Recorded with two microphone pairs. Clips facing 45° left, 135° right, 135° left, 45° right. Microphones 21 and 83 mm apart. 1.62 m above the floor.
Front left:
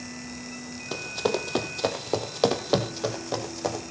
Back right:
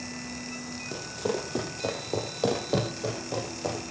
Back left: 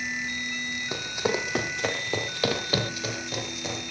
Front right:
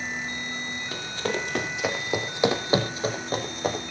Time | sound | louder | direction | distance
0.9 | running footsteps | front left 4 dB, back left 2 dB | 65° left | 3.5 m